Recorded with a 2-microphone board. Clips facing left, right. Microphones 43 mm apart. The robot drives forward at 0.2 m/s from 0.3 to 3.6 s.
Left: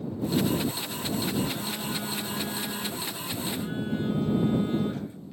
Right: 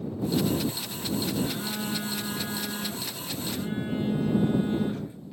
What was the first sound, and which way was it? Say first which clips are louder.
A phone buzzing: right 1 dB; 20° right (ahead or behind).